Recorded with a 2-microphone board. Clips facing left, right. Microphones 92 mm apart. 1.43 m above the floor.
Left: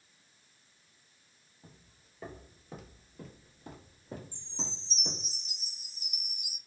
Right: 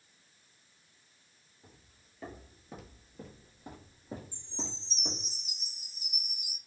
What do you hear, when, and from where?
1.6 s footsteps: 15° left (ahead or behind), 1.4 m; by 5.3 s 25° right (ahead or behind), 2 m
4.3 s a chime: 15° right (ahead or behind), 1.6 m